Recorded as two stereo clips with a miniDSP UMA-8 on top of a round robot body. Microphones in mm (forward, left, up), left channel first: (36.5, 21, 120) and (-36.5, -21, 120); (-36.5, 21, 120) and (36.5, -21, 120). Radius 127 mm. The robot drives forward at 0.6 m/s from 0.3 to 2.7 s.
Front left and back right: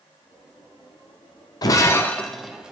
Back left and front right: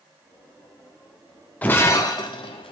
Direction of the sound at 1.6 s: 75° left.